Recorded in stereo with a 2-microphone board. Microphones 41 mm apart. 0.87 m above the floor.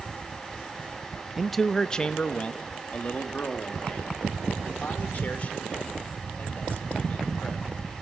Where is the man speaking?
5° right (ahead or behind), 0.5 m; by 7.7 s 40° left (ahead or behind), 4.5 m.